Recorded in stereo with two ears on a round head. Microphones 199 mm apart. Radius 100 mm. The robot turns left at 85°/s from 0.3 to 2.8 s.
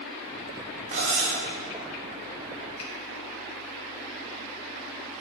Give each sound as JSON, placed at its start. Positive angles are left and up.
{"t": 0.9, "sound": "cutlery clinking", "azimuth_deg": -35, "distance_m": 1.4}
{"t": 2.8, "sound": "a finger snap", "side_deg": 80, "distance_m": 2.0}